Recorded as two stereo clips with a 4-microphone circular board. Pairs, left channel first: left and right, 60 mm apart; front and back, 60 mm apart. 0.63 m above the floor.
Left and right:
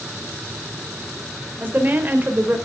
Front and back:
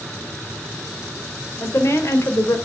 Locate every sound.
1.6 s a woman speaking: 30° right, 2.5 m